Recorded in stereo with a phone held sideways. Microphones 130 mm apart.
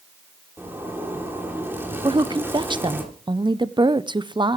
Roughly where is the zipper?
Centre.